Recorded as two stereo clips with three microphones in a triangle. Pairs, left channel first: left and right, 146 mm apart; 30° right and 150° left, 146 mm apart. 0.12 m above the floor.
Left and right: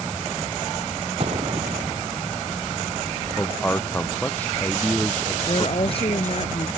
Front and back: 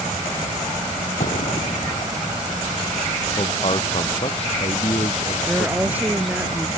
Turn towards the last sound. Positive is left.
turn(degrees=80)